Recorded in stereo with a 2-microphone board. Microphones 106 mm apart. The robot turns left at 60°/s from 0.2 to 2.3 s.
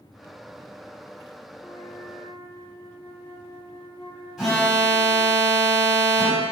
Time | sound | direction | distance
1.6 | a flute | 150° left | 1.6 m
4.4 | an alarm | 5° right (ahead or behind) | 3.5 m